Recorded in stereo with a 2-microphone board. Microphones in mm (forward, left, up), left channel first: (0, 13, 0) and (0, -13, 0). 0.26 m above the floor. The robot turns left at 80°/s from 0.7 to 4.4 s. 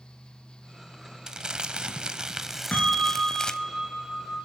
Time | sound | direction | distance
1.3 | crumpling | 45° right | 0.6 m
2.7 | a bell | 65° left | 2.5 m